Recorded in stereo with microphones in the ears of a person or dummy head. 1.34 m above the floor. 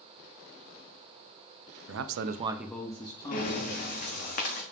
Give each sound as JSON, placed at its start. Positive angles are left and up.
{"t": 1.9, "sound": "a man speaking", "side_deg": -90, "distance_m": 0.7}
{"t": 3.3, "sound": "breathing", "side_deg": 50, "distance_m": 1.1}